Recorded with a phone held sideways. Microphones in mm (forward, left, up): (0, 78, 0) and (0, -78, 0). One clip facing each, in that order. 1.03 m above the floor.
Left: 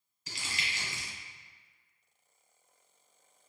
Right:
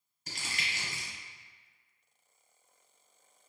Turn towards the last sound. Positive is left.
turn(degrees=-50)  # may be behind; listen again after turning